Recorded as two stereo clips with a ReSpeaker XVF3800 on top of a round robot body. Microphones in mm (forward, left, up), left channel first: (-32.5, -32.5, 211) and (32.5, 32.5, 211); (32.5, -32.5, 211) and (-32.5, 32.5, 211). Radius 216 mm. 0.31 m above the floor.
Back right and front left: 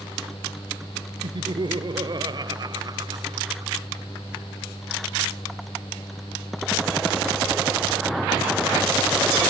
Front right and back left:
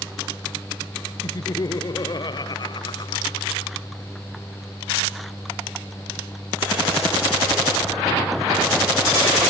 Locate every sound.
1.2 s laughter: 5° left; by 3.7 s 5° right